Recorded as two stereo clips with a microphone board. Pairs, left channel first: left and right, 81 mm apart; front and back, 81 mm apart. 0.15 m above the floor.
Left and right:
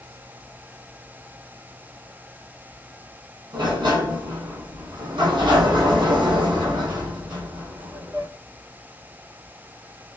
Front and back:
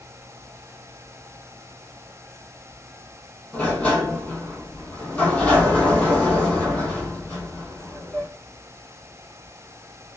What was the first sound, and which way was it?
A sliding door, 75° right.